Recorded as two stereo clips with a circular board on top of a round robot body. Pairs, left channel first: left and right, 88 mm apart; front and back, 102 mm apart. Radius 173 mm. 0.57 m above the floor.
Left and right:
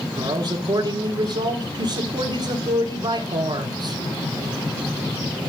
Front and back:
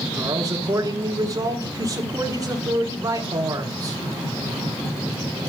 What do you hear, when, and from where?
0.2 s a man speaking: 125° right, 2 m